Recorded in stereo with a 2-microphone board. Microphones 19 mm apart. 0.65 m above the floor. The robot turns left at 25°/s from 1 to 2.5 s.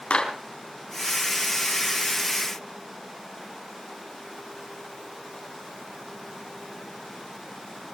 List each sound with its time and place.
0.1 s a clap: 80° left, 3.5 m